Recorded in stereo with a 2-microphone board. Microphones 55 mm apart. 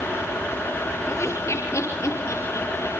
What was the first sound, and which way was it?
Laughter, 60° left (ahead or behind).